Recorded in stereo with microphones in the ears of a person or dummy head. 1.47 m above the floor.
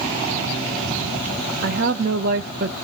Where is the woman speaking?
55° right (ahead or behind), 0.7 m.